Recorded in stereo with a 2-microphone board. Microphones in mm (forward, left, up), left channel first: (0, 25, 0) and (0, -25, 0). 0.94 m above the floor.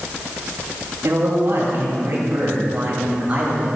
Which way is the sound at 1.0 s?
60° right (ahead or behind).